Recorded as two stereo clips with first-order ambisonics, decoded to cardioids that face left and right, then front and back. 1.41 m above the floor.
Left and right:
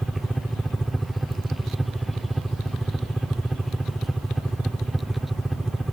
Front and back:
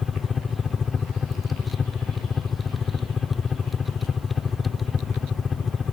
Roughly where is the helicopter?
Ahead.